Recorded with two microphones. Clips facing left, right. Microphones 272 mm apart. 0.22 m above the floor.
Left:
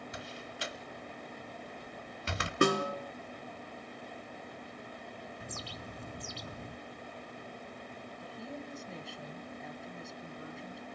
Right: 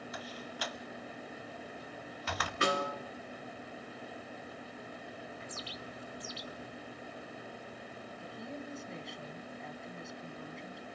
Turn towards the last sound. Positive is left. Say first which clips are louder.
# even
turn(degrees=0)  # may be behind; listen again after turning